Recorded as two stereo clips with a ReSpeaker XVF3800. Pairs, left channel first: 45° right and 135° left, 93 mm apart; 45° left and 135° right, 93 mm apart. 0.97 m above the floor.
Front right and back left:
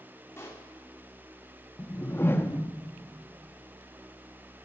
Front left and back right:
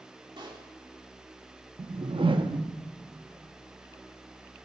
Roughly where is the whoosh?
Right.